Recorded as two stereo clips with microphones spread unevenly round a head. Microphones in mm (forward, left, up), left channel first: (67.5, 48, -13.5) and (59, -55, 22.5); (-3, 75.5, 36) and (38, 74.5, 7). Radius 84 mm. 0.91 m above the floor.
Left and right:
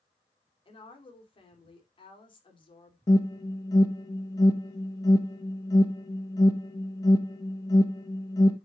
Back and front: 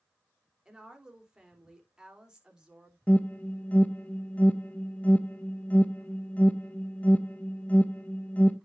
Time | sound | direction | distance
0.7 | a woman speaking | 60° left | 3 m
3.1 | an alarm | 95° left | 1.0 m